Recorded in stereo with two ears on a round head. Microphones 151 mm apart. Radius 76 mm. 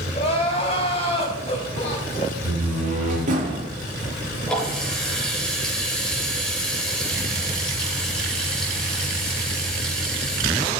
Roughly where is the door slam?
Right.